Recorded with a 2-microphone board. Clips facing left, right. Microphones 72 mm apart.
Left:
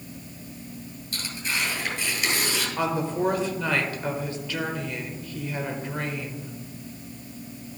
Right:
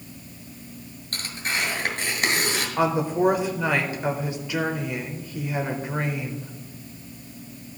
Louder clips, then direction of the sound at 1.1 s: Right 2 dB; 55° right (ahead or behind).